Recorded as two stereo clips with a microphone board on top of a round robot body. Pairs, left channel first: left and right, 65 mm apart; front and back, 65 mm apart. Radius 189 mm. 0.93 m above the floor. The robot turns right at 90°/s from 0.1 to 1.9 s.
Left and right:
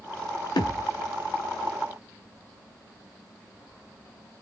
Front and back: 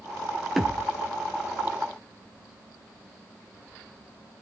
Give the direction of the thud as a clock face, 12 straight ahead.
9 o'clock.